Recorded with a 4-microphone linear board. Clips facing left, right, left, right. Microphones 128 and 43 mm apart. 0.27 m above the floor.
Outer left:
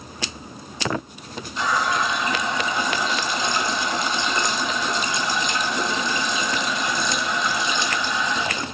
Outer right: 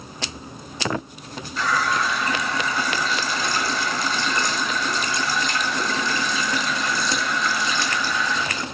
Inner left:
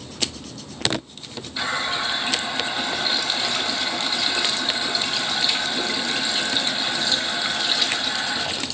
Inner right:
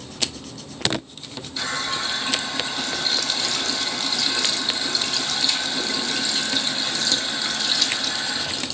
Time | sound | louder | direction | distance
1.6 | a running tap | even, inner left 2 dB | 20° left (ahead or behind) | 0.7 m